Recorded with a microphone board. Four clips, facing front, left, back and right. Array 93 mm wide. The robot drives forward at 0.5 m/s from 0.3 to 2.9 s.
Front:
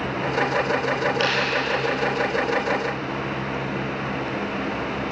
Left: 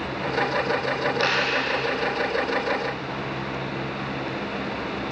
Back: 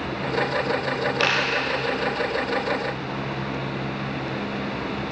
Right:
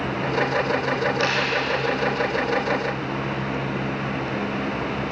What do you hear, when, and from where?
1.2 s a dropped coin: 170° right, 7.5 m